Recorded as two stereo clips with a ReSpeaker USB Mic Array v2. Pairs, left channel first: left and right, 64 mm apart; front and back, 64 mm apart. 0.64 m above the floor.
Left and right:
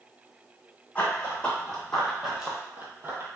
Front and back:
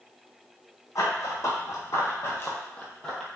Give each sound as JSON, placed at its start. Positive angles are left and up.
{"t": 0.9, "sound": "running footsteps", "azimuth_deg": 20, "distance_m": 1.4}